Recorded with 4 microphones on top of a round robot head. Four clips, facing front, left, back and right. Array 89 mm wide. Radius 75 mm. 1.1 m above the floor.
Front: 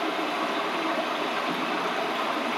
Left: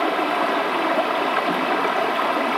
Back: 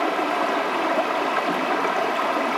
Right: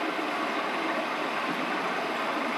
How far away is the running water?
About 0.8 m.